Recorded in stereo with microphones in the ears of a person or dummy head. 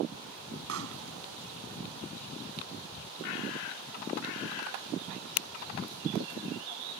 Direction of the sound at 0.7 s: 70° right (ahead or behind).